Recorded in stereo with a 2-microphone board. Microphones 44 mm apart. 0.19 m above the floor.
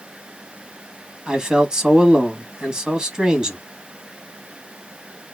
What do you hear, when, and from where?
1.3 s a man speaking: 15° right (ahead or behind), 1.3 m